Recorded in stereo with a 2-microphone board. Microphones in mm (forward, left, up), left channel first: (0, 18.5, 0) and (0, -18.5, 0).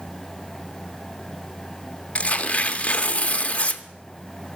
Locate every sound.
2.1 s tearing paper: 35° left (ahead or behind), 0.6 m